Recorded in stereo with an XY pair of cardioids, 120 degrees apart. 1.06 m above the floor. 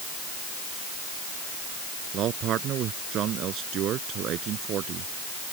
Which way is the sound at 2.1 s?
65° right.